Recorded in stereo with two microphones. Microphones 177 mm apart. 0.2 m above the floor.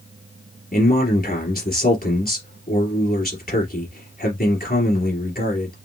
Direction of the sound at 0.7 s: 60° left (ahead or behind).